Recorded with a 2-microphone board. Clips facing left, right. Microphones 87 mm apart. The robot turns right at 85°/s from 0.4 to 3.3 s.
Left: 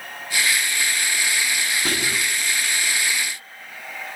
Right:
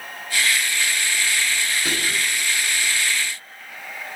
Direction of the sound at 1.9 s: 70° left.